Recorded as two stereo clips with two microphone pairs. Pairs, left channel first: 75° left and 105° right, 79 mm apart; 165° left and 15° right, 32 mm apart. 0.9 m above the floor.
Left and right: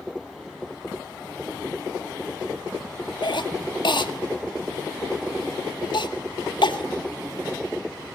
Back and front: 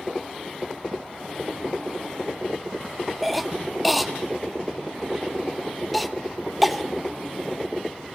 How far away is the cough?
About 1.7 m.